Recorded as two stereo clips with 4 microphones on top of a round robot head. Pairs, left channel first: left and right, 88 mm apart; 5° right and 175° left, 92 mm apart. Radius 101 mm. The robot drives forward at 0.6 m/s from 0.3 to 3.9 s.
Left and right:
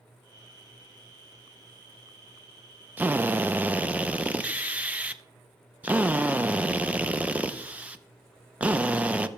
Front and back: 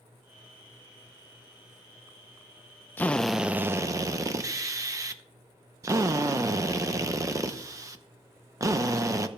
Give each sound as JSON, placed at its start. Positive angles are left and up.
{"t": 3.0, "sound": "a drill", "azimuth_deg": -45, "distance_m": 0.6}